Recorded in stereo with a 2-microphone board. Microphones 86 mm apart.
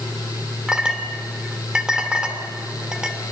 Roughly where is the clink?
Centre.